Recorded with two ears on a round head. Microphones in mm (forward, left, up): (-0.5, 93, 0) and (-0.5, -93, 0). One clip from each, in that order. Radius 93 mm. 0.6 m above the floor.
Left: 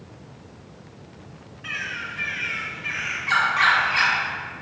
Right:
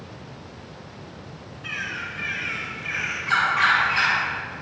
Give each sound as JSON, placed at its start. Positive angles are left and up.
{"t": 1.6, "sound": "a bird", "side_deg": 10, "distance_m": 4.5}